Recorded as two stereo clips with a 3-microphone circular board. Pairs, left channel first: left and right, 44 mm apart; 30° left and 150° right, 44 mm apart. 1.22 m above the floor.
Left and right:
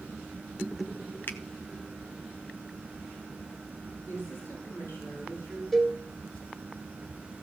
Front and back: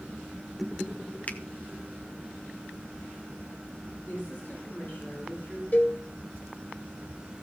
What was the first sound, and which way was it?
A finger snap, 75° left.